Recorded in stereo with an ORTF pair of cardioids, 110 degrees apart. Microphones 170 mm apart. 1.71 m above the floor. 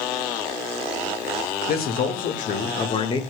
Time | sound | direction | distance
1.7 | a man speaking | 70° left | 2 m